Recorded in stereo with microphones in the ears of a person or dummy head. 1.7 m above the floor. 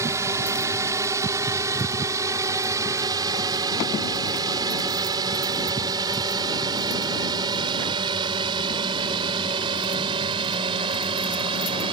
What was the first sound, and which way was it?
A drone, 15° right (ahead or behind).